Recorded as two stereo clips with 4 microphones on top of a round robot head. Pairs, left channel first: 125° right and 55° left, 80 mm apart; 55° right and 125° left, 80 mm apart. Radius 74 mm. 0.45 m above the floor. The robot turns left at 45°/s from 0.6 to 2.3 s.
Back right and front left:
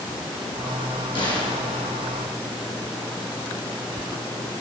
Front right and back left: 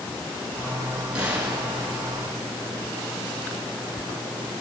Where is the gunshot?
155° right, 3.5 m; by 1.9 s 175° left, 3.5 m.